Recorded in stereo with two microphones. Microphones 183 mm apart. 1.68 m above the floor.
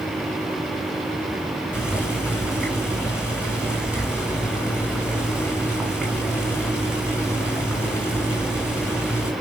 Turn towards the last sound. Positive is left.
turn(degrees=-5)  # may be behind; listen again after turning